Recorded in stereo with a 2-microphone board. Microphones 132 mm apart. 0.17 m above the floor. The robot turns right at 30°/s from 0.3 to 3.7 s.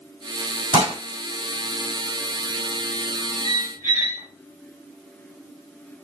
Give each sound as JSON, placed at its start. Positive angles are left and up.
{"t": 0.7, "sound": "dishes clattering", "side_deg": -35, "distance_m": 1.1}
{"t": 3.4, "sound": "a squeak", "side_deg": -65, "distance_m": 3.5}